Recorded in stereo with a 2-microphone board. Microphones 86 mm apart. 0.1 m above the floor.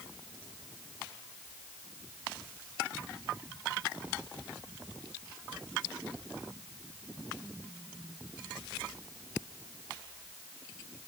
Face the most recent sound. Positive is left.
No sound to turn to.